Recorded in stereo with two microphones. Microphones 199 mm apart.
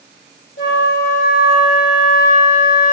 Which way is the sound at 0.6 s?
75° left (ahead or behind).